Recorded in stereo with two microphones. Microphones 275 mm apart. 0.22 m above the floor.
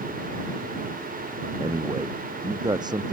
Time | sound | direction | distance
1.6 | a man speaking | 15° right (ahead or behind) | ?